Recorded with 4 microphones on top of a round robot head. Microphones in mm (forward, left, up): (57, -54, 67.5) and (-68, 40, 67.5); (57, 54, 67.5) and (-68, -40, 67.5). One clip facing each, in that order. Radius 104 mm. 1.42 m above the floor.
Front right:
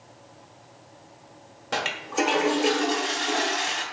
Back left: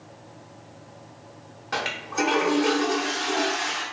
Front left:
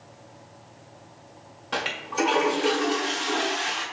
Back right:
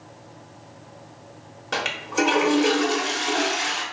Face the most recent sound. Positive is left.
turn(degrees=-100)